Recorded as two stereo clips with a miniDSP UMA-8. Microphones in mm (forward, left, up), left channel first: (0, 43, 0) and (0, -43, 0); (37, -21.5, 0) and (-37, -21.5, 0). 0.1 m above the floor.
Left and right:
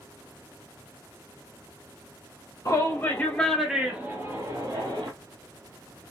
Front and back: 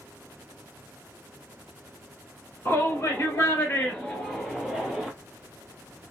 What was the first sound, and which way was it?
A shout, 55° left.